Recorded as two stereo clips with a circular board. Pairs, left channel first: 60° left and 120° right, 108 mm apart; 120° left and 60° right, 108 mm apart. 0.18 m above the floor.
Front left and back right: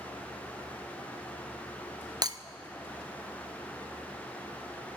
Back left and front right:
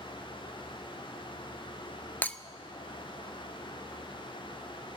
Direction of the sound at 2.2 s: 165° right.